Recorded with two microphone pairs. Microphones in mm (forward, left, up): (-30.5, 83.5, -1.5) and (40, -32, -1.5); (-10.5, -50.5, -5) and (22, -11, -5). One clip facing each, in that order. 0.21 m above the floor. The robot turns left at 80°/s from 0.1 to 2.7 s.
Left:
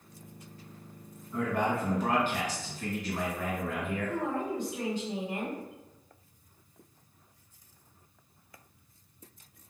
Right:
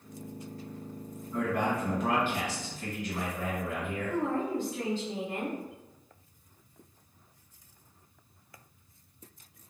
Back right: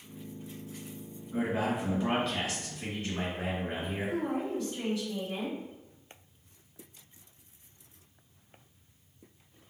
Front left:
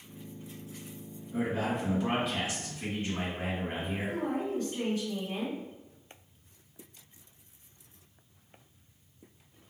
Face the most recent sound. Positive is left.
turn(degrees=55)